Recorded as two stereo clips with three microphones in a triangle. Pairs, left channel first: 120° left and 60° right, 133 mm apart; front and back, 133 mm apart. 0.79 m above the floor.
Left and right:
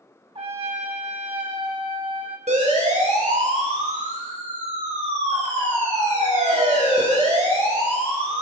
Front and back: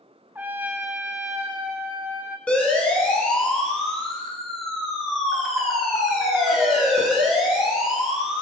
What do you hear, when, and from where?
0.3 s a trumpet: 105° right, 1.6 m
2.5 s a siren: 80° right, 7.5 m; by 8.4 s 90° right, 11 m